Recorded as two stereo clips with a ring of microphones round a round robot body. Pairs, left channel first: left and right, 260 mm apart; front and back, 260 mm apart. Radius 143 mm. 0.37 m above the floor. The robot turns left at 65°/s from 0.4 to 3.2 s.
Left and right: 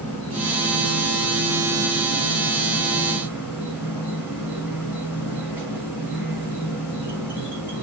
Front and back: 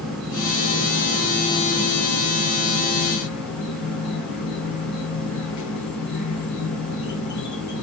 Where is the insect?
175° left, 4 m; by 7.8 s 5° right, 4 m.